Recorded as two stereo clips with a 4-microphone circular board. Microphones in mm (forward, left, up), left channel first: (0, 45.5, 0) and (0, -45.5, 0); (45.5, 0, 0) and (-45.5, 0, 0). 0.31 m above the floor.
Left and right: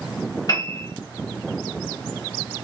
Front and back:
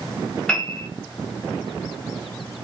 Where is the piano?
75° left, 1.1 m.